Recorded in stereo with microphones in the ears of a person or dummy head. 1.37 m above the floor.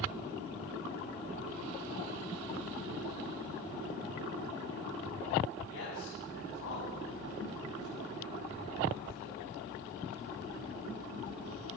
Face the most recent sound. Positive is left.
turn(degrees=85)